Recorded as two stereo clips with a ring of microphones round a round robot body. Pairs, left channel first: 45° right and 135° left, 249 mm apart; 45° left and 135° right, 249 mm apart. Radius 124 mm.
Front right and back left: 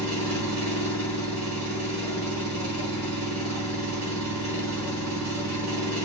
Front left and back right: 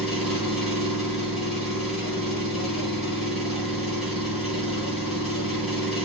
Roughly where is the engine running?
Behind left.